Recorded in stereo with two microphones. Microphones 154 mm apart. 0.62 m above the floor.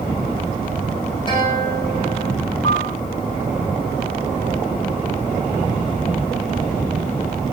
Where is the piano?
50° left (ahead or behind), 1.2 m.